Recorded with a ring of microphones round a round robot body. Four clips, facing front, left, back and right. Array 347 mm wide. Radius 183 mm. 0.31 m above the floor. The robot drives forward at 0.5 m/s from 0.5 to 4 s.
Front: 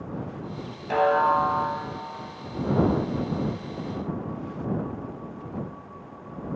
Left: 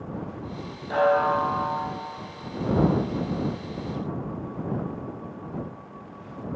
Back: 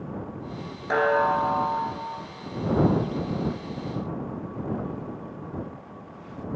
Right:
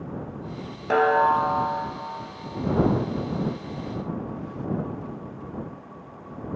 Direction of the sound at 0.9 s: 105° right.